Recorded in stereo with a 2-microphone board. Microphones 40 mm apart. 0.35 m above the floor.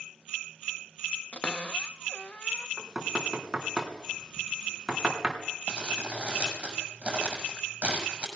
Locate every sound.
1.3 s a cupboard door: 35° left (ahead or behind), 1.0 m
2.8 s knocking: 15° right (ahead or behind), 3.5 m
5.7 s crumpling: 25° right (ahead or behind), 5.5 m